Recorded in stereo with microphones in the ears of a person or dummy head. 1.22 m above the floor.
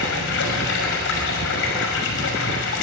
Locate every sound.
0.0 s running water: 70° left (ahead or behind), 6 m